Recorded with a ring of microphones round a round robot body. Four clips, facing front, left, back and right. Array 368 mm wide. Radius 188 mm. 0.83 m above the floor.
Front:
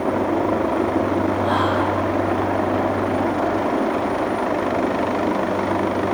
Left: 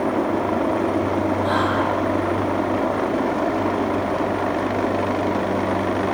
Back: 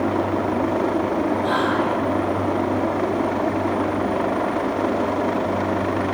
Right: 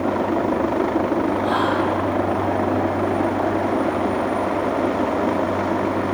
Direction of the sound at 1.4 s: 135° left.